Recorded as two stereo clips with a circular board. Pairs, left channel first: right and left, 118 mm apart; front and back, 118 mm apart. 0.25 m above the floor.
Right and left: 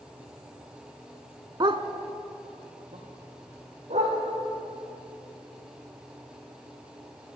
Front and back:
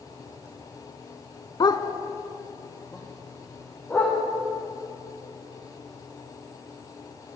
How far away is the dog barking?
About 0.6 m.